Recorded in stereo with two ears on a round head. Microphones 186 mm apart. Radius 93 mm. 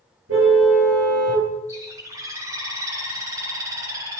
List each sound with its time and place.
0.3 s a car horn: 70° right (ahead or behind), 6.5 m
1.7 s a bird: 15° right (ahead or behind), 3 m